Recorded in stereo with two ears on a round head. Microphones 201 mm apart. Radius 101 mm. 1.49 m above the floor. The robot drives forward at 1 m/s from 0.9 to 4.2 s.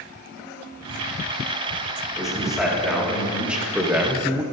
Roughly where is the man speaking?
Centre.